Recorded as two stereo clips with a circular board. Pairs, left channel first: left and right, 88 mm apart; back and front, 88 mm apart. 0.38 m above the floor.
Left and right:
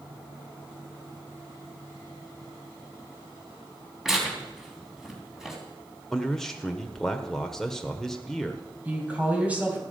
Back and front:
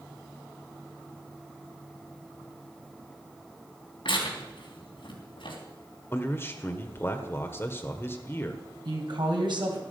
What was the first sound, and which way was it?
Tearing paper, 175° right.